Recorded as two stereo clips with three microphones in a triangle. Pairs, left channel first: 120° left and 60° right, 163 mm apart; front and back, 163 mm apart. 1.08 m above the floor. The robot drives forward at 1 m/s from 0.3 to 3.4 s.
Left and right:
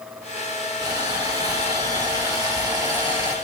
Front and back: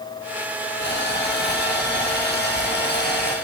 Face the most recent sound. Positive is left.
turn(degrees=5)